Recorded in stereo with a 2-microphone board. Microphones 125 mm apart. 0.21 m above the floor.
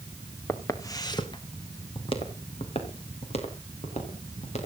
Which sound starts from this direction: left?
Footsteps, at 0.5 s.